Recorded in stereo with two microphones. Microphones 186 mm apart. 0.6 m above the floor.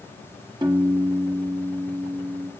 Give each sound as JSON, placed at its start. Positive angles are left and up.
{"t": 0.6, "sound": "a piano", "side_deg": -25, "distance_m": 1.1}